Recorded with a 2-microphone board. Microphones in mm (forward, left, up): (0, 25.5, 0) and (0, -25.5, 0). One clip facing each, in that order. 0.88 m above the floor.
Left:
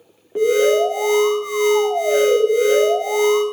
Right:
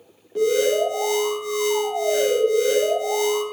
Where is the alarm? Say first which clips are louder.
Left 4 dB; 30° left (ahead or behind), 3 m.